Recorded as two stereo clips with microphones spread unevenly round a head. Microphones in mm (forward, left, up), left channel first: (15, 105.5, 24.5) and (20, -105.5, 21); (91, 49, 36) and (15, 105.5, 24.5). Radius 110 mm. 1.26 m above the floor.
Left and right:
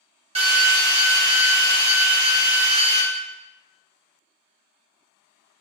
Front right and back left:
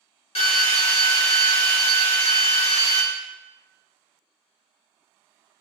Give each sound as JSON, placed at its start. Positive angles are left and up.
{"t": 0.3, "sound": "a drill", "azimuth_deg": -25, "distance_m": 1.3}